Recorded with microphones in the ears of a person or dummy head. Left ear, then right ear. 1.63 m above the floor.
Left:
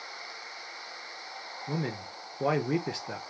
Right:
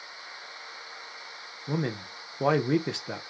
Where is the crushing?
I don't hear crushing.